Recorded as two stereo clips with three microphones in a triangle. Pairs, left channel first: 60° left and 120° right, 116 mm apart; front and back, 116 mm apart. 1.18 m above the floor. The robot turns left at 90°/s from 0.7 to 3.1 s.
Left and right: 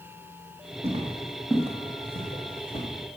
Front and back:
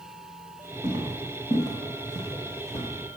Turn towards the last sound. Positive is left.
turn(degrees=-20)